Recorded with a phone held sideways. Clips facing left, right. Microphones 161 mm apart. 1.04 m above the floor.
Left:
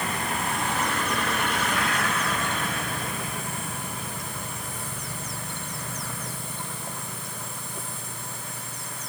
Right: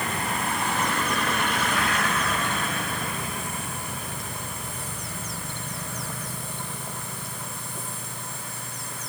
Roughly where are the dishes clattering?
No dishes clattering in this recording.